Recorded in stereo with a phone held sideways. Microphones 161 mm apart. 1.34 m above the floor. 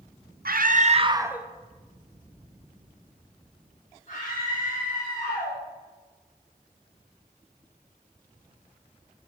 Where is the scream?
70° right (ahead or behind), 0.7 m; by 5.6 s 50° left (ahead or behind), 3 m.